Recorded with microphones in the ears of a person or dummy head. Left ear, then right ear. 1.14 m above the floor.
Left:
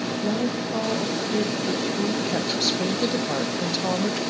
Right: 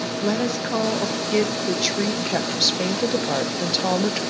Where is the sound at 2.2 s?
15° right (ahead or behind), 0.5 m.